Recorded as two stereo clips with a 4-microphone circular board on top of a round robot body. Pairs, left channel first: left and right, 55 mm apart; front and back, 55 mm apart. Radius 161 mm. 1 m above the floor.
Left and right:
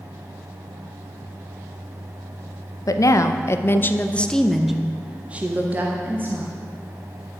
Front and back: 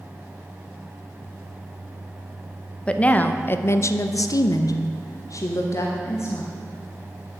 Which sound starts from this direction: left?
A woman speaking, at 2.9 s.